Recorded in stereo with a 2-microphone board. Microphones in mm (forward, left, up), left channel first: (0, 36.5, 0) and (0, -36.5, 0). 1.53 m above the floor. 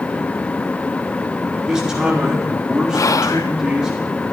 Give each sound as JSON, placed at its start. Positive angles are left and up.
{"t": 1.6, "sound": "a man speaking", "side_deg": -10, "distance_m": 3.5}
{"t": 2.9, "sound": "whispering", "side_deg": 50, "distance_m": 0.6}